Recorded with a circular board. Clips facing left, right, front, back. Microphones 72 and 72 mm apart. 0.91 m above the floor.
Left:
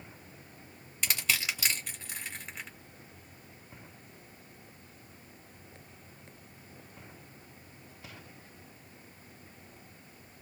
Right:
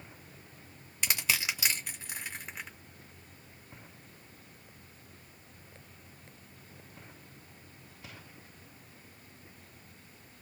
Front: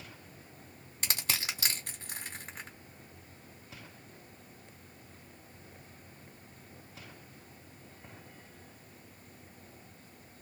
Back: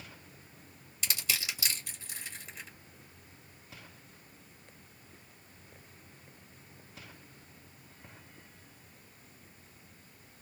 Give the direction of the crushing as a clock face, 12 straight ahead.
12 o'clock.